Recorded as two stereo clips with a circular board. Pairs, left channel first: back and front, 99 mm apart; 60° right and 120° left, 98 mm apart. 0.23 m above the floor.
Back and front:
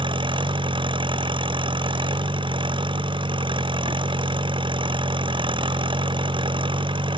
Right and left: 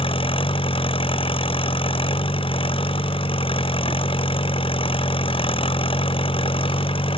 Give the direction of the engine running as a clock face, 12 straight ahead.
1 o'clock.